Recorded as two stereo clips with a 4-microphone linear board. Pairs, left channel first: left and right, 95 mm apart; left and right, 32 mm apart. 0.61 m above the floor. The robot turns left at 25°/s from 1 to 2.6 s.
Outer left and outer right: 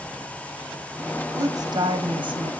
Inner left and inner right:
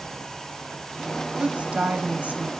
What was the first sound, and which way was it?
A woman speaking, 40° right (ahead or behind).